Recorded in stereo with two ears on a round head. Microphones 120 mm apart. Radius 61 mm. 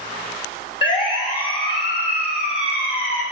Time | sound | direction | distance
0.8 | a siren | 35° left (ahead or behind) | 3 m